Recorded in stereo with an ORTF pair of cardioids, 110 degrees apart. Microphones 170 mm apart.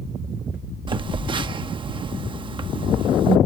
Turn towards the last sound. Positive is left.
turn(degrees=-30)